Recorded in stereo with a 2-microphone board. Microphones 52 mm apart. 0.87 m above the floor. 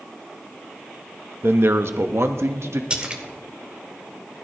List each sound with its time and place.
1.4 s a man speaking: 50° right (ahead or behind), 0.9 m; by 2.8 s 65° right (ahead or behind), 1.6 m
2.9 s a splash: 20° right (ahead or behind), 1.7 m